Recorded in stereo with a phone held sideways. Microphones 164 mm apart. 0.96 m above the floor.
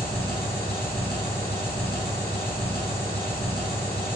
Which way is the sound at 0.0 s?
80° left.